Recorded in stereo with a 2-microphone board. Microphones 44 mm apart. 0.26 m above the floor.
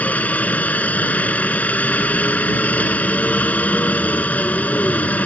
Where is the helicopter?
35° left (ahead or behind).